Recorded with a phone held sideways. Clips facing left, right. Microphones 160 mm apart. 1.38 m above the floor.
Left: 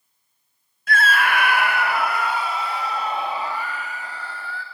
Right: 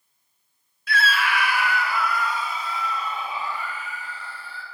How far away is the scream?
About 0.7 m.